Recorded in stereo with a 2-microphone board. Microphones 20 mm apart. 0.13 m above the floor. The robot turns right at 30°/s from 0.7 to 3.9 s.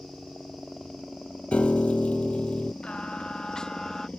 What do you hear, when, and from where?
0.0 s a helicopter: 5° right (ahead or behind); by 4.2 s 60° left (ahead or behind)
1.5 s a piano: 85° left; by 2.7 s 120° left
2.8 s singing: 120° left; by 4.1 s 155° left